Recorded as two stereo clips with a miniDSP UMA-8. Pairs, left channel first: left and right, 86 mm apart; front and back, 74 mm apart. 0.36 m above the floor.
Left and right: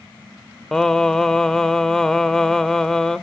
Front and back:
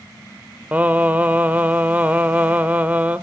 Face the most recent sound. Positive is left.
turn(degrees=165)